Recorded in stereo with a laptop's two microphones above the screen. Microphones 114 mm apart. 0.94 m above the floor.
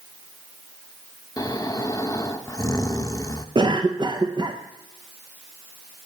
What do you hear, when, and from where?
1.4 s snoring: 30° left (ahead or behind), 0.6 m
3.5 s a cough: 40° right (ahead or behind), 0.6 m